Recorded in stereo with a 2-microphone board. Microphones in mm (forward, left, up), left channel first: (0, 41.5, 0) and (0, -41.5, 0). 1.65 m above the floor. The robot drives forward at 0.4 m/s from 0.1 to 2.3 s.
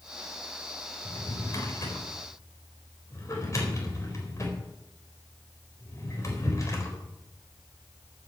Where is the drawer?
45° left (ahead or behind), 3.5 m; by 7.0 s 40° left (ahead or behind), 4 m.